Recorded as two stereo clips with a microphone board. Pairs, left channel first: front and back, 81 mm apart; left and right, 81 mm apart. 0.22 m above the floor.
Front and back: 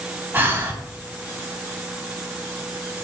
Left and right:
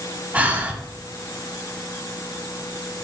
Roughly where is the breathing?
Behind right.